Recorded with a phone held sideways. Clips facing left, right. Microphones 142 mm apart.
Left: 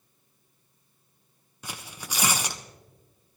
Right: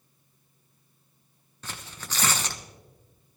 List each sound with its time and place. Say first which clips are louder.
1.6 s tearing paper: left 1 dB; 10° left (ahead or behind), 0.8 m